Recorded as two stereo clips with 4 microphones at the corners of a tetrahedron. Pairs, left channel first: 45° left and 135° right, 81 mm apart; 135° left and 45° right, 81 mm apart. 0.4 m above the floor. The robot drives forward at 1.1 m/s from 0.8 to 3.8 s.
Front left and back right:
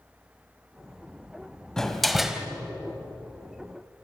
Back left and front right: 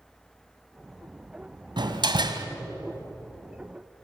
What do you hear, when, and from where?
1.8 s a door slam: 35° right, 2 m; by 2.5 s 55° right, 1.6 m